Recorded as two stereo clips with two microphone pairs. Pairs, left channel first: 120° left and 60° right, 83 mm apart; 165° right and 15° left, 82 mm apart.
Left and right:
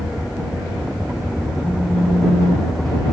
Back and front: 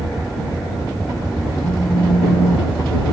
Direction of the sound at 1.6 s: 140° right.